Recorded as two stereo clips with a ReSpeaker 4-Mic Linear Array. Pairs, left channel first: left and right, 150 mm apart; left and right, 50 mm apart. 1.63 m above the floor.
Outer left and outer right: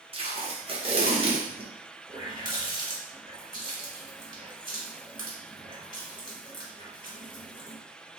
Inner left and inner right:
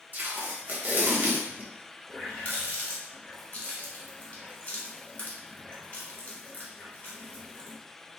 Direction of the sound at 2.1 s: 30° left (ahead or behind).